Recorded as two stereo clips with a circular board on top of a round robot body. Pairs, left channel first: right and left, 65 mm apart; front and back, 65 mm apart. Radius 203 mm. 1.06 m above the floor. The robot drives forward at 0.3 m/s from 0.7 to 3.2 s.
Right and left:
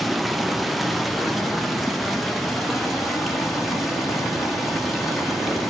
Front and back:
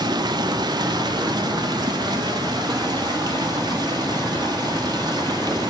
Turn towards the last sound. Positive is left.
turn(degrees=180)